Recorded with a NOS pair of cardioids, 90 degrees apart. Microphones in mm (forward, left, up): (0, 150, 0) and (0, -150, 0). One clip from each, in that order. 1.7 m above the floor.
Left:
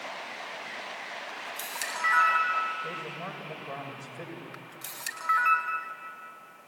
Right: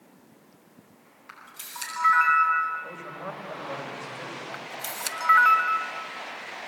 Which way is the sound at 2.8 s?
15° left.